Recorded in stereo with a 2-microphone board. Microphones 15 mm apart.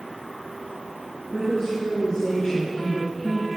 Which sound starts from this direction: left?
A woman speaking, at 1.3 s.